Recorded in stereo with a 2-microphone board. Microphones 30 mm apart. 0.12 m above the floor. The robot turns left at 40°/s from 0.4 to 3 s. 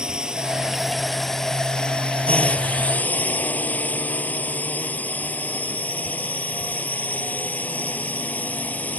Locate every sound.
0.0 s a drone: 155° right; by 9.0 s 100° left